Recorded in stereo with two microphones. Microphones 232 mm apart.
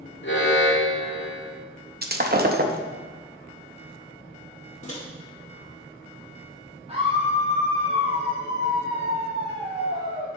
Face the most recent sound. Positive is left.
turn(degrees=-25)  # may be behind; listen again after turning